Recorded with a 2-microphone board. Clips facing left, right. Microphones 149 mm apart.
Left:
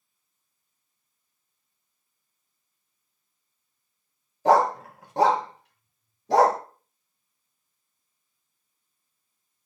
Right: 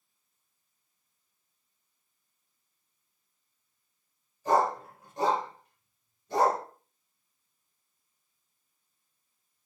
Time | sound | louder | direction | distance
4.5 | a dog barking | left 6 dB | 70° left (ahead or behind) | 1.2 m